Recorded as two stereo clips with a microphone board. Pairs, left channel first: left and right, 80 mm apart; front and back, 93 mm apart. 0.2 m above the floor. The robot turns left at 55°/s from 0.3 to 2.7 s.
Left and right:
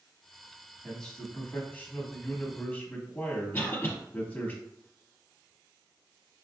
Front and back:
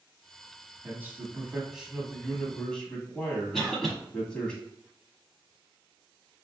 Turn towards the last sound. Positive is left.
turn(degrees=85)